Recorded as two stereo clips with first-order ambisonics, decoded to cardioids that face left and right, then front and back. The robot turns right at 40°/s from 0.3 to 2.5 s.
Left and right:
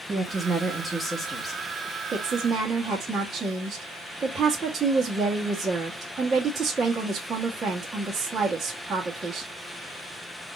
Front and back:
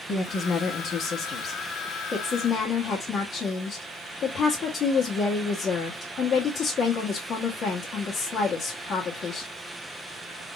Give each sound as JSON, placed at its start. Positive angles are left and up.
{"t": 0.1, "sound": "a woman speaking", "azimuth_deg": -30, "distance_m": 1.1}
{"t": 2.1, "sound": "a woman speaking", "azimuth_deg": -35, "distance_m": 1.2}